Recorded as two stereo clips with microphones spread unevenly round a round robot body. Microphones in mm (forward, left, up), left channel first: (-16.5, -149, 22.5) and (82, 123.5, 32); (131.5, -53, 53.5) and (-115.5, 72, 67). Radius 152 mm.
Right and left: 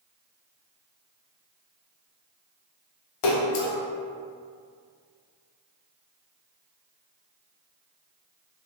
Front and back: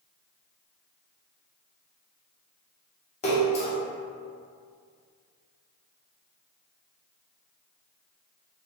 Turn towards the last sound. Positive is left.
turn(degrees=-95)